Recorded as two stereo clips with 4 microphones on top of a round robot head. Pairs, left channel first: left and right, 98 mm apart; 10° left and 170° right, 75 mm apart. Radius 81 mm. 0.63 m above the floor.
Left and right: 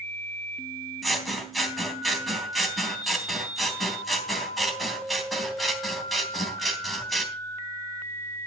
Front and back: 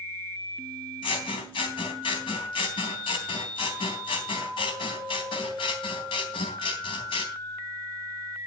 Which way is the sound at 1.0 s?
Straight ahead.